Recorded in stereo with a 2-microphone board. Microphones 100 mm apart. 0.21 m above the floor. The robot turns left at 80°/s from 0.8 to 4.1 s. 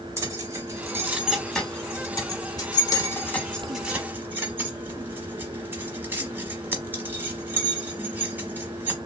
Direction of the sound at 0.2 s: 30° right (ahead or behind).